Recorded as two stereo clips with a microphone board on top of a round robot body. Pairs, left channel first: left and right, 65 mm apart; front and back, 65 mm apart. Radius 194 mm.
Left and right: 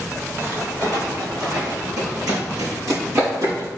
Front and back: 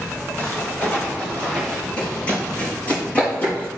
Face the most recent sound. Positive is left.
turn(degrees=-65)